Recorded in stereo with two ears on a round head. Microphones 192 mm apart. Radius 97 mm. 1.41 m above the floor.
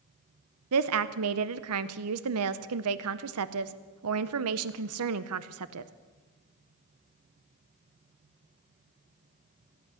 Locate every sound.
0.7 s a woman speaking: 75° right (ahead or behind), 0.7 m